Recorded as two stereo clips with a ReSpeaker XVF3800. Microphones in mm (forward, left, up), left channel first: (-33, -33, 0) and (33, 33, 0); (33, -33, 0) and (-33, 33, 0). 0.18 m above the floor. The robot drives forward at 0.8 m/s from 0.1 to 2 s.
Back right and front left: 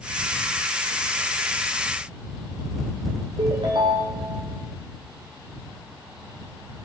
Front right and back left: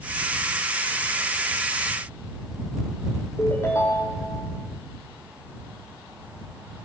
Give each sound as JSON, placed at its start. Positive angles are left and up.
{"t": 3.4, "sound": "a ringtone", "azimuth_deg": 15, "distance_m": 3.0}